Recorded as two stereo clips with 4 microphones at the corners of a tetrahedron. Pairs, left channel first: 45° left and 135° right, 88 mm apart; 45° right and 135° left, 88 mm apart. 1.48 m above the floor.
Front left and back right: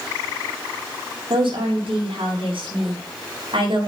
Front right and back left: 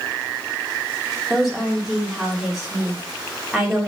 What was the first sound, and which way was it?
A woman speaking, 140° right.